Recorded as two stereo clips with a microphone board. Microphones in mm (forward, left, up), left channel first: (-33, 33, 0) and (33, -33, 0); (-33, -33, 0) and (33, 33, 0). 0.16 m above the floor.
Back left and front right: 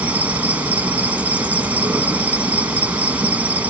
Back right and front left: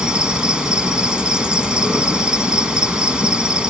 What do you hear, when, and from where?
0.0 s an insect: 15° right, 1.8 m